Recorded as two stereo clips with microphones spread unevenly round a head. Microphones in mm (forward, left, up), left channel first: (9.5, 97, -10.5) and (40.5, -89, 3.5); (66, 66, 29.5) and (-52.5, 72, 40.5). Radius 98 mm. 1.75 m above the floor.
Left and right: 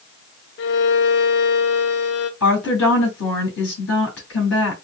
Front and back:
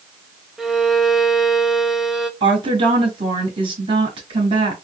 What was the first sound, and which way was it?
A violin, 95° left.